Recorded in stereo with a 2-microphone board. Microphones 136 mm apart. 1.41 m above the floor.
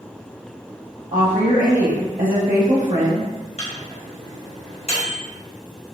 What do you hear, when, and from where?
1.1 s a woman speaking: 75° right (ahead or behind), 0.9 m
3.6 s a microwave: 50° left (ahead or behind), 0.9 m